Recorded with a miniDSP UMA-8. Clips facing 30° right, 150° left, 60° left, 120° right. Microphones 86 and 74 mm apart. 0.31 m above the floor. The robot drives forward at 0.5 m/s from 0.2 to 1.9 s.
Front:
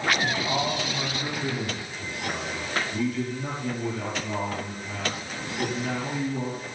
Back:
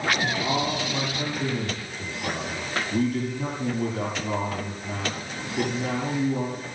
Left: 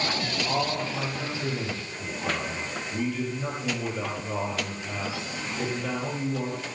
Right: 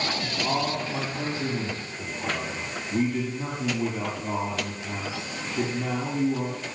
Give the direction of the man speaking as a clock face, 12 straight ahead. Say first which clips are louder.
Back 1 dB, right 1 dB; 6 o'clock.